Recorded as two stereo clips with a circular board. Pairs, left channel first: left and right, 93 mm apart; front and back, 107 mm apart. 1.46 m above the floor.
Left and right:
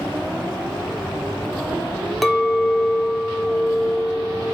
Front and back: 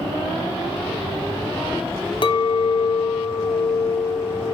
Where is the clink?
Straight ahead, 0.6 m.